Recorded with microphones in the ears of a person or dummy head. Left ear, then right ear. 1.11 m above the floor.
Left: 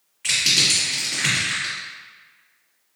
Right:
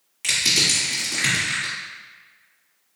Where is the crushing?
30° right (ahead or behind), 1.8 m.